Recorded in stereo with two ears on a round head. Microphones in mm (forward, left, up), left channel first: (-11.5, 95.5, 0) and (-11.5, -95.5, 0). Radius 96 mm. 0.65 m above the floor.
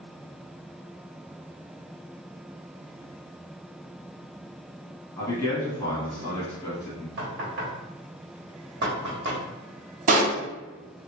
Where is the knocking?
55° right (ahead or behind), 1.2 m.